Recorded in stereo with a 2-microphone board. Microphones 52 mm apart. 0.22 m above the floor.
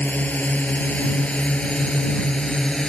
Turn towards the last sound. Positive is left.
turn(degrees=15)  # may be behind; listen again after turning